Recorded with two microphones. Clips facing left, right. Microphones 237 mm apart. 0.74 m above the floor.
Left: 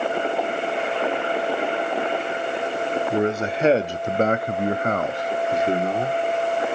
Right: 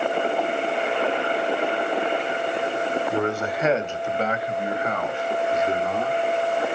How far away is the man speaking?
About 1.3 m.